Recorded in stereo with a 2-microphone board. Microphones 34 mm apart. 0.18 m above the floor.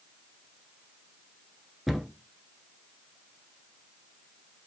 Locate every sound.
1.9 s a cupboard door: 5° right (ahead or behind), 1.0 m